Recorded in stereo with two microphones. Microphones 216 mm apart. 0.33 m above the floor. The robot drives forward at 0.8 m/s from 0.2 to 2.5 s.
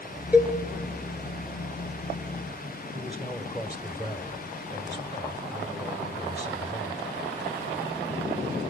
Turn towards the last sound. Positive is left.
turn(degrees=20)  # may be behind; listen again after turning